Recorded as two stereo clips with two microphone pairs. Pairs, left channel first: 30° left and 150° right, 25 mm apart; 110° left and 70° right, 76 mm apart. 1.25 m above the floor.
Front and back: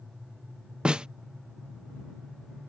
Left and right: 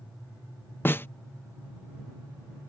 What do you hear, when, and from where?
0.8 s a snare drum: 165° left